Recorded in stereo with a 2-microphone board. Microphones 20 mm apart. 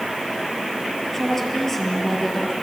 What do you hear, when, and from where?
1.1 s a woman speaking: 5° left (ahead or behind), 7 m